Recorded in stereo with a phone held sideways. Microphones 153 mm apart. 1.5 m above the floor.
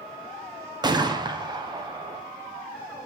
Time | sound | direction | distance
0.8 | a gunshot | 25° right (ahead or behind) | 1.0 m